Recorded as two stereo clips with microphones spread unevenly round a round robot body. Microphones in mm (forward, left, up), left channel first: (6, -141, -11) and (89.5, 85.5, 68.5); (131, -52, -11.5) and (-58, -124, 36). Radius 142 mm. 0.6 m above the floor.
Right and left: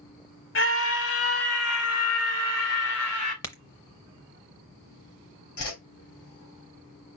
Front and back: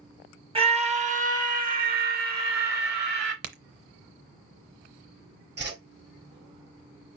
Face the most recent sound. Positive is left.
turn(degrees=-125)